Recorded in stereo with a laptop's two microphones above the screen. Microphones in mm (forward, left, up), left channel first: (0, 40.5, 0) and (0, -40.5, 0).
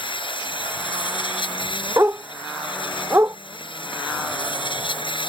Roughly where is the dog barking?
Right.